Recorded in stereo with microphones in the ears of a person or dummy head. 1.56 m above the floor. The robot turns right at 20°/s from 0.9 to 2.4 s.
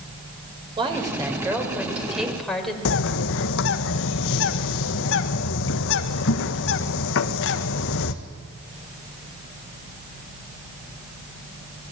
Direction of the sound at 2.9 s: 75° left (ahead or behind).